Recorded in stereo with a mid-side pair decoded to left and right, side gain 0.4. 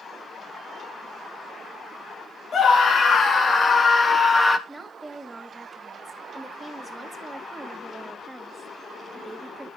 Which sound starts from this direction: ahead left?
A scream, at 2.5 s.